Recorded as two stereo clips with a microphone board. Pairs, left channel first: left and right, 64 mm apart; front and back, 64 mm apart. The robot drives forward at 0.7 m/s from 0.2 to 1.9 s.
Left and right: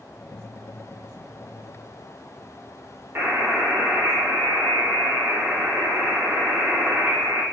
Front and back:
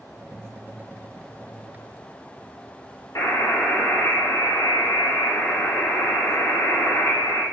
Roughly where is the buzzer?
Ahead right.